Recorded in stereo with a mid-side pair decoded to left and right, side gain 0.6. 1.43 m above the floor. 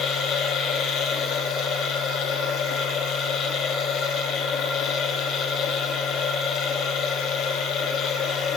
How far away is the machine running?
About 0.9 m.